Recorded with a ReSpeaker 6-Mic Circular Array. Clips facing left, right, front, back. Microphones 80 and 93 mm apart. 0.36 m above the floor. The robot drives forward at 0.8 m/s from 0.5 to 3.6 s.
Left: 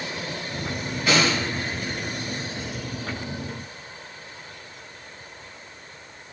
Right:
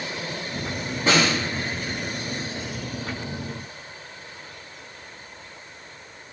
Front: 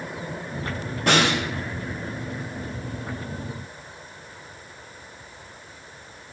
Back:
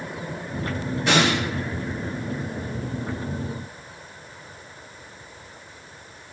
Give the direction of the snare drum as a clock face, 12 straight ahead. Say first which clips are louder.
Right 1 dB, even; 1 o'clock.